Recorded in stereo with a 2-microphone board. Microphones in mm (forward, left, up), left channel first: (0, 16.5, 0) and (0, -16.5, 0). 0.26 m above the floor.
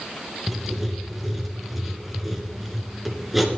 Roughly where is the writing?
Centre.